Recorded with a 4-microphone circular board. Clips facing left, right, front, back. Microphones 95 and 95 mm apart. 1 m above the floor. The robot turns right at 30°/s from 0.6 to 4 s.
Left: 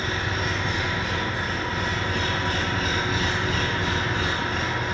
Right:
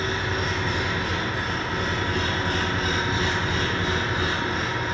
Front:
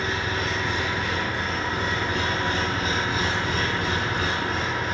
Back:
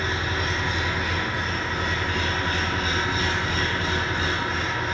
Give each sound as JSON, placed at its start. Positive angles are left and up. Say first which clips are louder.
{"t": 0.0, "sound": "an engine running", "louder": "right 1 dB, even", "azimuth_deg": -110, "distance_m": 1.2}